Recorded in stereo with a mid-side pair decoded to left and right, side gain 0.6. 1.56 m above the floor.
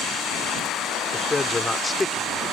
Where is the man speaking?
15° left.